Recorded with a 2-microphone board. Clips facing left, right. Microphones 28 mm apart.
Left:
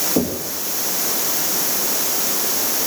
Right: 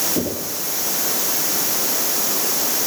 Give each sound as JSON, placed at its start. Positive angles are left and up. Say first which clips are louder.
{"t": 0.2, "sound": "knocking", "louder": "left 3 dB", "side_deg": 35, "distance_m": 9.0}